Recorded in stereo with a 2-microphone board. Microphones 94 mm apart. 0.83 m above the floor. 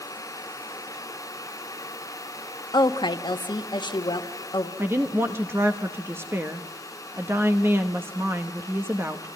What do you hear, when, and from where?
2.7 s a woman speaking: 55° left (ahead or behind), 1.1 m
4.8 s a woman speaking: 25° right (ahead or behind), 1.0 m